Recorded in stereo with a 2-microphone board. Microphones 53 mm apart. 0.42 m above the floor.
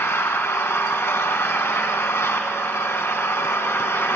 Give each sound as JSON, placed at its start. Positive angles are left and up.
{"t": 0.0, "sound": "an engine running", "side_deg": 55, "distance_m": 1.7}